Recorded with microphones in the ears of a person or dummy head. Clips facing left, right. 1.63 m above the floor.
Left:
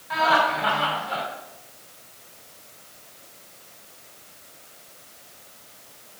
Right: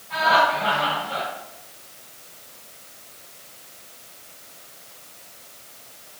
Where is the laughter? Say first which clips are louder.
Right 1 dB; 80° left, 4 m.